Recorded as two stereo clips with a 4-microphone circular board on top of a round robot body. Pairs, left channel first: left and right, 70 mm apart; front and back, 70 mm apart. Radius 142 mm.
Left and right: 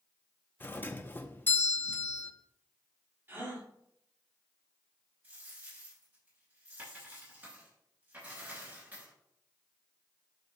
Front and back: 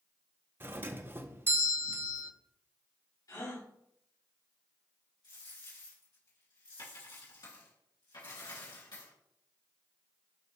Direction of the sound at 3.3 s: 35° right.